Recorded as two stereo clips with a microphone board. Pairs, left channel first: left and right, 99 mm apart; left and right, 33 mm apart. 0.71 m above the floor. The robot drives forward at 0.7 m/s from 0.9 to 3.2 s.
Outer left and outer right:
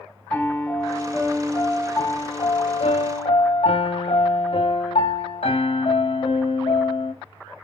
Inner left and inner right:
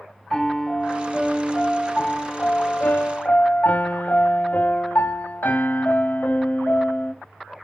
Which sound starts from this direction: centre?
A piano, at 0.3 s.